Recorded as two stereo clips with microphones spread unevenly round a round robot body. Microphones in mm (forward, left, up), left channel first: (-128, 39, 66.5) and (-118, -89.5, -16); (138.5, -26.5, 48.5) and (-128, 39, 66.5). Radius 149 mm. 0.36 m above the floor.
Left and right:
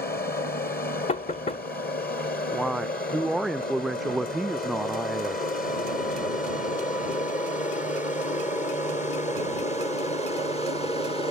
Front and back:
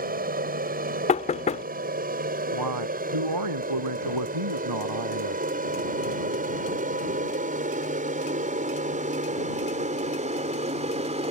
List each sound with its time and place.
0.0 s an aircraft: 115° left; by 11.3 s 160° left
1.1 s knocking: 20° left
2.5 s a man speaking: 175° right